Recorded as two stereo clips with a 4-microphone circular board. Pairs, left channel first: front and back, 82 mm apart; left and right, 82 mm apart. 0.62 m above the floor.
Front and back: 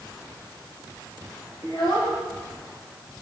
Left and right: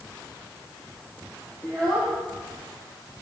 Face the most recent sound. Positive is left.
turn(degrees=5)